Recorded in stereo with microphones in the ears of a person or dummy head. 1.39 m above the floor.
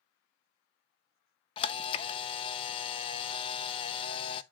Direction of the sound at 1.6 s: 30° left (ahead or behind).